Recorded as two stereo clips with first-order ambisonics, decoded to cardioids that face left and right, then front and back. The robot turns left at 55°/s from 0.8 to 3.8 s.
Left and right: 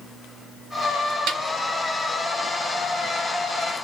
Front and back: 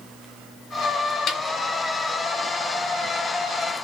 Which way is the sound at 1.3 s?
55° right.